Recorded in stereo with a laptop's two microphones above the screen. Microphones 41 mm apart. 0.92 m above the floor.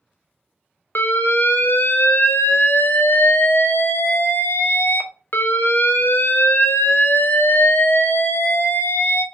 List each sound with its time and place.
0.9 s an alarm: 55° left (ahead or behind), 0.7 m